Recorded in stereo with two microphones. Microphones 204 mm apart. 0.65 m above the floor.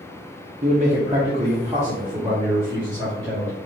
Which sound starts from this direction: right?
A man speaking, at 0.6 s.